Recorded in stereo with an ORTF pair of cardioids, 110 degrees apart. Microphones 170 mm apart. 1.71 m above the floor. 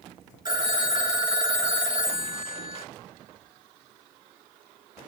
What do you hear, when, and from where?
0.5 s a phone ringing: 25° right, 2 m